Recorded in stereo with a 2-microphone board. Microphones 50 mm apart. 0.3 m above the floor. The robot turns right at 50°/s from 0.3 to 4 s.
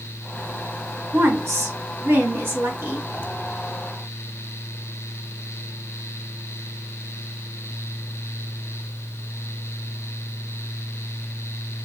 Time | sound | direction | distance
1.1 | a woman speaking | 125° right | 2.5 m